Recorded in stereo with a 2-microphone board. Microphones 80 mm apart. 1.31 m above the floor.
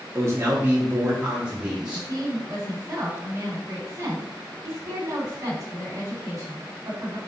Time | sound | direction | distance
0.1 | a man speaking | 35° right (ahead or behind) | 1.3 m
1.9 | a woman speaking | 40° right (ahead or behind) | 2.0 m